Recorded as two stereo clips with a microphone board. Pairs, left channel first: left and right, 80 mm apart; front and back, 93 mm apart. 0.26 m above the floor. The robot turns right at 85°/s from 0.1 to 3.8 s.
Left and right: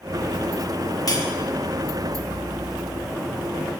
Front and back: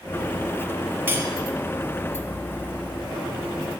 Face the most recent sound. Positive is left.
turn(degrees=-10)